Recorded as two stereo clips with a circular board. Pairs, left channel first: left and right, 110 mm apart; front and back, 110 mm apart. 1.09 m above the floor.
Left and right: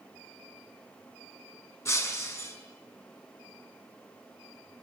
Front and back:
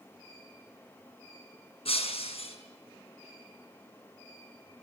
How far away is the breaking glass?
About 6 m.